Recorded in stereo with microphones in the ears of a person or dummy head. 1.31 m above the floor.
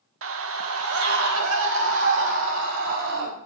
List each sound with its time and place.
0.2 s a scream: 65° right (ahead or behind), 1.1 m; by 3.3 s 70° right (ahead or behind), 4.5 m